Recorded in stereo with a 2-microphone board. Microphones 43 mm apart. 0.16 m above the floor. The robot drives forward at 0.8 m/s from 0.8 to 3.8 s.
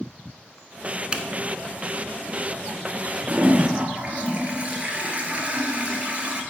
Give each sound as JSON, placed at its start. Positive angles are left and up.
{"t": 1.1, "sound": "a zipper", "side_deg": -25, "distance_m": 0.5}
{"t": 3.3, "sound": "a toilet flushing", "side_deg": -40, "distance_m": 1.0}